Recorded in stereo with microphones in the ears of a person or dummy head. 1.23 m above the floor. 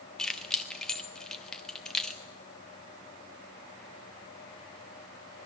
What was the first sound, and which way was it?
Keys jangling, 5° left (ahead or behind).